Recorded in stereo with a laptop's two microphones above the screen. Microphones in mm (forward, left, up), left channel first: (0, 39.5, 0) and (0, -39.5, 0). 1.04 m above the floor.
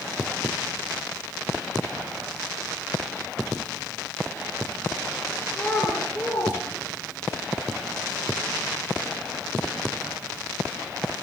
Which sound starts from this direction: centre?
A child speaking, at 5.5 s.